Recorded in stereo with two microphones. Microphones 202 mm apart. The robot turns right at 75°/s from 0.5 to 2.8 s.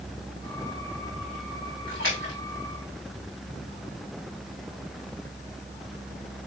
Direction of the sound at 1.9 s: 75° left (ahead or behind).